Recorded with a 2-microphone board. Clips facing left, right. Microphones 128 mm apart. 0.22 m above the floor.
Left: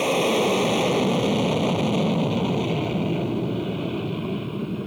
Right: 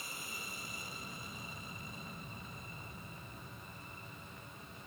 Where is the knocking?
I don't hear knocking.